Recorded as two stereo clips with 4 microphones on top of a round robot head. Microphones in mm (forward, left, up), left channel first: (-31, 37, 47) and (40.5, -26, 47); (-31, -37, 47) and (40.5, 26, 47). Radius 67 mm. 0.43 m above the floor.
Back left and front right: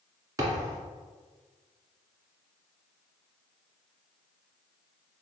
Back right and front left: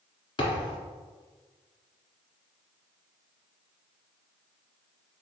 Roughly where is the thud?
Right.